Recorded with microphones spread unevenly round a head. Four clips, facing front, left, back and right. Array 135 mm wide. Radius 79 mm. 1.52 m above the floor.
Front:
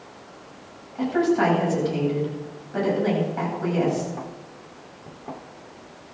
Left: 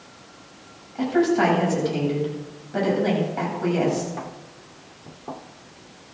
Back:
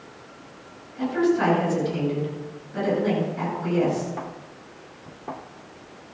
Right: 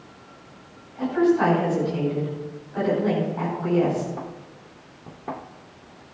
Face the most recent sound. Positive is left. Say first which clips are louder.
# even, front 1 dB
turn(degrees=70)